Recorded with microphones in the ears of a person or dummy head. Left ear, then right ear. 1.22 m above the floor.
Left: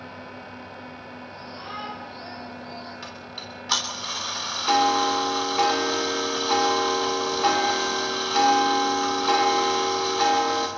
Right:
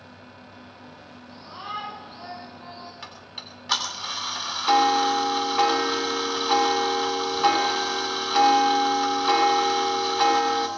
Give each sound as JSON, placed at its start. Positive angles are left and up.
{"t": 1.3, "sound": "a shout", "side_deg": -40, "distance_m": 9.0}
{"t": 3.0, "sound": "ticking", "side_deg": -10, "distance_m": 3.0}